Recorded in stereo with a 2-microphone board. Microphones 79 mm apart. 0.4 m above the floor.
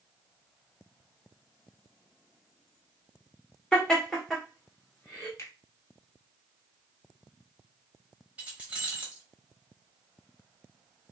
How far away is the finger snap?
About 0.9 m.